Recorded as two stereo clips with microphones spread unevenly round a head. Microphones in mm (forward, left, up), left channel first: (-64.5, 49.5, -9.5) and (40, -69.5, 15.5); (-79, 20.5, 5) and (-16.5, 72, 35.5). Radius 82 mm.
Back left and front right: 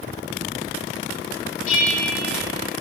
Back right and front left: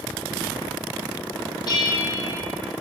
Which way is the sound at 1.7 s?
175° left.